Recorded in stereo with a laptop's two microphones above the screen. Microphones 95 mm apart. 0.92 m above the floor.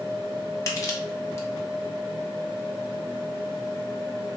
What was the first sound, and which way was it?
Crushing, 30° left (ahead or behind).